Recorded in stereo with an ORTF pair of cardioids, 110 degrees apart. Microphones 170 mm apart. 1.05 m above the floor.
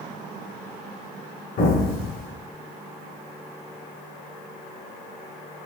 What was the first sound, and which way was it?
An explosion, 65° left.